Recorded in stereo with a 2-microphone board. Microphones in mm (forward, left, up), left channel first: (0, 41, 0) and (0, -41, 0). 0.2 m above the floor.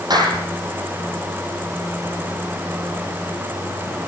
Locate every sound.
0.1 s a clap: 60° right (ahead or behind), 6 m